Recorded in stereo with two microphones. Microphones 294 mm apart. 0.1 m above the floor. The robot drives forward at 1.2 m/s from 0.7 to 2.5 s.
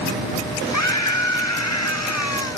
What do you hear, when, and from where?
0.7 s a scream: 70° left (ahead or behind); by 2.6 s 65° left (ahead or behind)